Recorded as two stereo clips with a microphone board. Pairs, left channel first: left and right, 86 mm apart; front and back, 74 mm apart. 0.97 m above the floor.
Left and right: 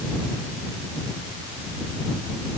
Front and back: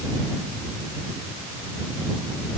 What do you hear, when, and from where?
Only background noise.